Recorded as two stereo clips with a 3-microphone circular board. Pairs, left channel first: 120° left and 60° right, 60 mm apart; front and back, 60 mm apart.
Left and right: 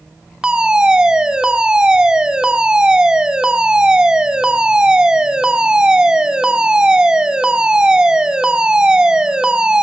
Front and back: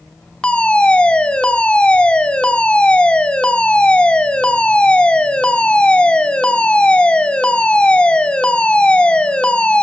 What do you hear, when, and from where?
0.4 s a fire alarm: 20° right, 1.7 m